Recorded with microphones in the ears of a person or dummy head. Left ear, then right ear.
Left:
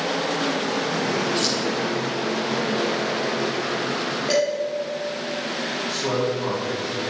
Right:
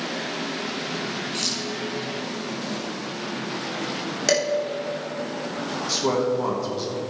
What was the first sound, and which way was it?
Keys jangling, 20° right (ahead or behind).